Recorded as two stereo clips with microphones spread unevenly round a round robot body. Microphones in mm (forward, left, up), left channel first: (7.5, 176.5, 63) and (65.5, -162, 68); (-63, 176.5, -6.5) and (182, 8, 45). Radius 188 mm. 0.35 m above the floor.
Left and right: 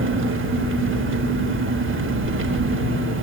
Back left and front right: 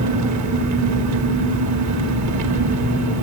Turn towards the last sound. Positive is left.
turn(degrees=-40)